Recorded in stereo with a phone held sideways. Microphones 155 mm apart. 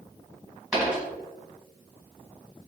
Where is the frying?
I don't hear frying.